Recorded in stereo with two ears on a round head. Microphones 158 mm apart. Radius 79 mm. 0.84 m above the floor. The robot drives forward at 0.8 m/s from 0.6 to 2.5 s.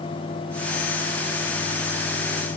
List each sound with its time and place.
Only background noise.